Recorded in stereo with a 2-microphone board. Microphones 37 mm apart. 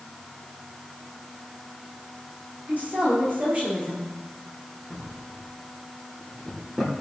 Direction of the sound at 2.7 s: 50° right (ahead or behind).